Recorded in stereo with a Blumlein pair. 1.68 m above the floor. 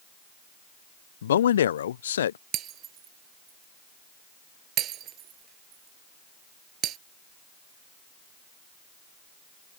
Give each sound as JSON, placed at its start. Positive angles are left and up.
{"t": 1.2, "sound": "a man speaking", "azimuth_deg": 65}
{"t": 2.5, "sound": "breaking glass", "azimuth_deg": -30}